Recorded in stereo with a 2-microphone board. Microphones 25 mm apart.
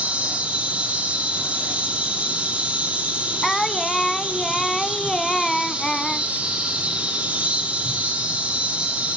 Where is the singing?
15° left (ahead or behind), 0.8 m.